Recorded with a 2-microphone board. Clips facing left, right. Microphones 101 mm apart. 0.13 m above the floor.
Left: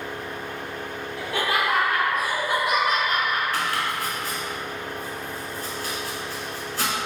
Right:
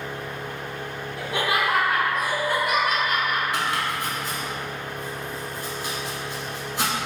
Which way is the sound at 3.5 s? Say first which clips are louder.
Even; 20° right (ahead or behind).